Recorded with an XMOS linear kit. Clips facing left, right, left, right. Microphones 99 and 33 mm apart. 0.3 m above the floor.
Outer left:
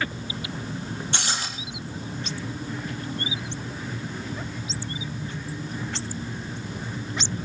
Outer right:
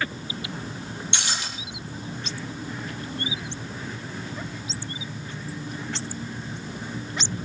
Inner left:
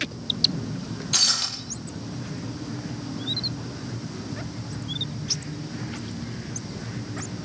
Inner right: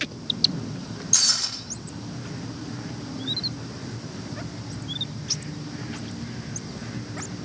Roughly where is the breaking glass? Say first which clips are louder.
Outer left 1 dB, inner left 2 dB; left.